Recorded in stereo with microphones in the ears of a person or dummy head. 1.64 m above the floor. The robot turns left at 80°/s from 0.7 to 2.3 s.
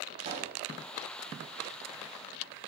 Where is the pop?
35° right (ahead or behind), 4.5 m.